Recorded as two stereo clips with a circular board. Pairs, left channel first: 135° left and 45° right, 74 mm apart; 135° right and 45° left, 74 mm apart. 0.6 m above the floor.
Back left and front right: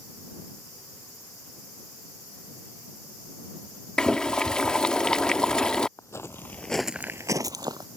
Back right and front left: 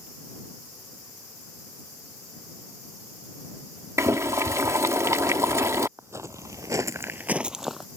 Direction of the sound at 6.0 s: 90° left.